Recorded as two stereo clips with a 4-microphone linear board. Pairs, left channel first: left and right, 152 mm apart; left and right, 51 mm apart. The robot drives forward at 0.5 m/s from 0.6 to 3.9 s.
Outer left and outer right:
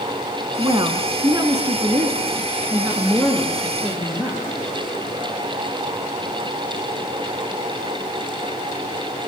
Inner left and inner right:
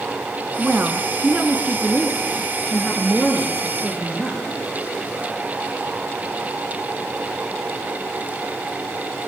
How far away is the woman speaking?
About 1.4 m.